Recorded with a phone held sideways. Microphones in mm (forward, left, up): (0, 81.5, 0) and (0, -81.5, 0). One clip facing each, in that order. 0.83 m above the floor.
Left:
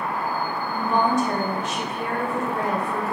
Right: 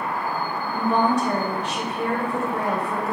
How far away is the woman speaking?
About 1.3 m.